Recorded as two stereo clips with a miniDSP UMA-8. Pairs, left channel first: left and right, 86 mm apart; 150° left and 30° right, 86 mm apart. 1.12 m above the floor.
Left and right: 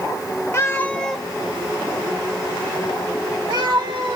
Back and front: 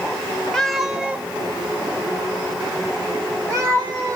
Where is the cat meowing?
70° left, 0.6 m; by 4.2 s 75° right, 1.7 m.